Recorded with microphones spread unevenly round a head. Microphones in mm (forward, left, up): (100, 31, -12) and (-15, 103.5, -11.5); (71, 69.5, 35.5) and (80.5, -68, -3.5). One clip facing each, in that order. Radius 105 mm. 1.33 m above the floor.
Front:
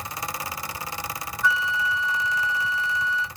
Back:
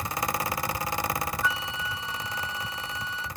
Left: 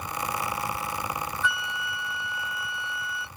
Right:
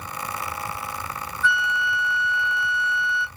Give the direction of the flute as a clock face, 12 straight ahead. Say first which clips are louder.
Front 6 dB, right 6 dB; 4 o'clock.